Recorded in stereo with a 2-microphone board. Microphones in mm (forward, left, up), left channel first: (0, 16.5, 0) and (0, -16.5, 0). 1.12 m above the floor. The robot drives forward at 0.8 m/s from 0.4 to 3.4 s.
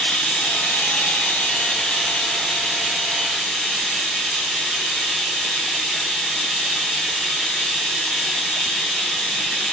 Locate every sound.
0.0 s running water: 50° left (ahead or behind), 0.8 m; by 9.7 s 15° left (ahead or behind), 2 m